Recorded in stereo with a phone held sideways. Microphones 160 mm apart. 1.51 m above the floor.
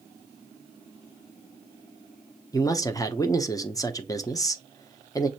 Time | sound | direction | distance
2.5 | a man speaking | 20° left (ahead or behind) | 0.7 m